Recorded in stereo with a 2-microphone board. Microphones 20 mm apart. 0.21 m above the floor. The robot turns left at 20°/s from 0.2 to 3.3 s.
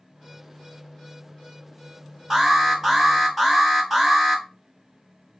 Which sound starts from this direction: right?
An alarm, at 2.3 s.